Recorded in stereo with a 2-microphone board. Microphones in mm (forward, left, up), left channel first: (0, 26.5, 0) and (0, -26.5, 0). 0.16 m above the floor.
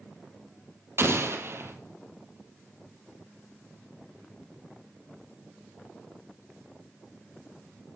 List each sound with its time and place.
1.0 s an explosion: 55° right (ahead or behind), 2 m